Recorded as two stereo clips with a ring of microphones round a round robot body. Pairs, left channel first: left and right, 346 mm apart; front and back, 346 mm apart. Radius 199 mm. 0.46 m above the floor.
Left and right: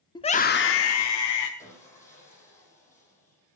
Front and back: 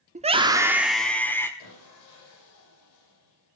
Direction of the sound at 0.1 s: 150° left.